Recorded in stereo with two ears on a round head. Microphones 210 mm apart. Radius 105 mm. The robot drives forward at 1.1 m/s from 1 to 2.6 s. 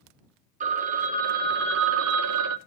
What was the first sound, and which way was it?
A phone ringing, 30° right (ahead or behind).